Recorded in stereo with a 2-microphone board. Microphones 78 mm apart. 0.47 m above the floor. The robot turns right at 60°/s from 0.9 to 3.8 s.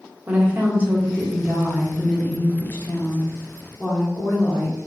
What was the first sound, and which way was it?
A woman speaking, 50° right.